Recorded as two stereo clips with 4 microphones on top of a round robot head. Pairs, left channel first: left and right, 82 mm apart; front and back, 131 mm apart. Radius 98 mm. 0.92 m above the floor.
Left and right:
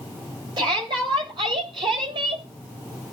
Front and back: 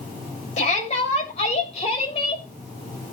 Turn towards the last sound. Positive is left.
turn(degrees=-60)